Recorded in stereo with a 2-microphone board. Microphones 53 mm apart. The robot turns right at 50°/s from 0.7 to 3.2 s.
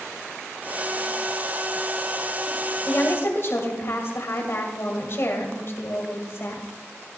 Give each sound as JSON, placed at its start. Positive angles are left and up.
{"t": 2.9, "sound": "a woman speaking", "side_deg": 40, "distance_m": 2.0}